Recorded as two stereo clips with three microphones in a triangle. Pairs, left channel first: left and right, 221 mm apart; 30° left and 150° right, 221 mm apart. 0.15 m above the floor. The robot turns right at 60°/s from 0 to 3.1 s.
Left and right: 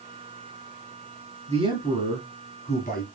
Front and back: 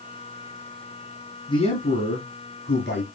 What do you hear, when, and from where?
1.5 s a man speaking: 40° right, 2 m; by 3.1 s 55° left, 2 m